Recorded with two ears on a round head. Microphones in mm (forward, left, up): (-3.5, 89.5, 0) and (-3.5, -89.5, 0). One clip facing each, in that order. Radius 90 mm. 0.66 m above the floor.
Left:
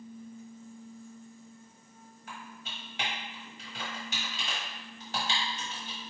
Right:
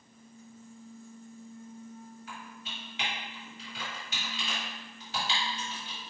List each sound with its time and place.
2.3 s typing on a keyboard: 40° left (ahead or behind), 1.2 m